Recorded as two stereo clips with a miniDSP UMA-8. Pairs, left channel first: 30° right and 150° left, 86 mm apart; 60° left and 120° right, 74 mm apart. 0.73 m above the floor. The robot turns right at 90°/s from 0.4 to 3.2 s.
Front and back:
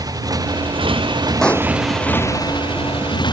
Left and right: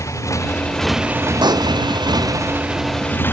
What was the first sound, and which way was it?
A motorcycle, 105° left.